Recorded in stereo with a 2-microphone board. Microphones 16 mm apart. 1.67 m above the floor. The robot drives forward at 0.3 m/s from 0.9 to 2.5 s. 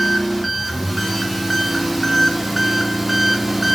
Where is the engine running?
10° right (ahead or behind), 1.2 m; by 3.8 s 15° right (ahead or behind), 0.7 m.